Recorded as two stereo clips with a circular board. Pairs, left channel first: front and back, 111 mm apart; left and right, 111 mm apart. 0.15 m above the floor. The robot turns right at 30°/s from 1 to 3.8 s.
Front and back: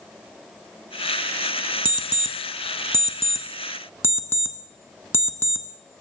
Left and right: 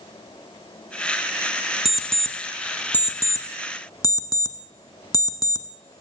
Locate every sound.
1.9 s an alarm clock: 5° right, 0.7 m; by 5.7 s 55° left, 0.7 m